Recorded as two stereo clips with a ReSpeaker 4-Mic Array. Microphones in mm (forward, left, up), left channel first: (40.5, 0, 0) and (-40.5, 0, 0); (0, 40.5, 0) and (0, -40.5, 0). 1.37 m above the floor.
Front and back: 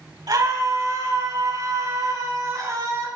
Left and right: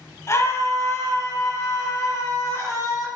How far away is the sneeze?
No sneeze in this recording.